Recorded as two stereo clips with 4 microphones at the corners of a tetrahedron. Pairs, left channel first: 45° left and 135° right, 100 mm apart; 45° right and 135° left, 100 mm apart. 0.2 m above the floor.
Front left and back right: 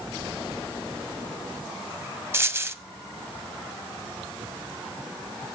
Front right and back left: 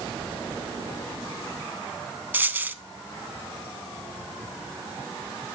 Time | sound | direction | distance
2.3 | a dropped coin | 175° right | 0.6 m